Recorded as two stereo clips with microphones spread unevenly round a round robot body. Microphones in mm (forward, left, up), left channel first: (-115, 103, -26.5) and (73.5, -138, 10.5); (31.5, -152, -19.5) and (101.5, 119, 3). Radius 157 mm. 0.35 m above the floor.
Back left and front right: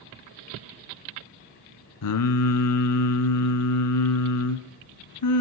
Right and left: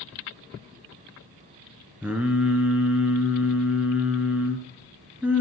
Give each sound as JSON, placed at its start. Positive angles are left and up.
{"t": 2.0, "sound": "singing", "azimuth_deg": 160, "distance_m": 0.9}